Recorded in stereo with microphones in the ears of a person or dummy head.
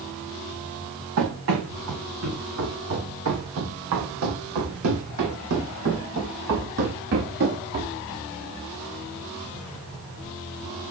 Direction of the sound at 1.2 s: 70° right (ahead or behind).